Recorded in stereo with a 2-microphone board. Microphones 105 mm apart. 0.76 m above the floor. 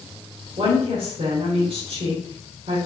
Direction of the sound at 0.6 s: 60° right (ahead or behind).